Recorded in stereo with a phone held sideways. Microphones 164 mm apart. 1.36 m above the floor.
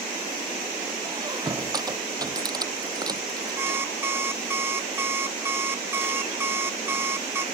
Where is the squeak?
25° right (ahead or behind).